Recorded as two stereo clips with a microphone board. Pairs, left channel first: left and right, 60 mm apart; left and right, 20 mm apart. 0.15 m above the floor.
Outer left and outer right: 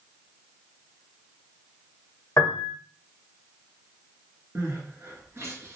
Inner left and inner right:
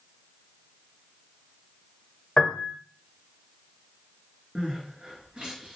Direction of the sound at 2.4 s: 55° left (ahead or behind).